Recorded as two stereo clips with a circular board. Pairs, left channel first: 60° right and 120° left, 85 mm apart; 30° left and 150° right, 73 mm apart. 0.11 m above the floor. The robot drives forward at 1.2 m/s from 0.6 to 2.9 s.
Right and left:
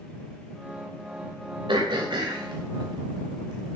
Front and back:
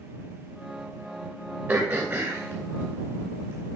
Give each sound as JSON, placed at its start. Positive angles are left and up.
{"t": 1.7, "sound": "throat clearing", "azimuth_deg": 150, "distance_m": 3.5}